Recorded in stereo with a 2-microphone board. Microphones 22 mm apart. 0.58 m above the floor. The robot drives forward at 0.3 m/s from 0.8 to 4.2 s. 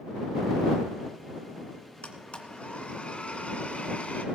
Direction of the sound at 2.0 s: 55° left (ahead or behind).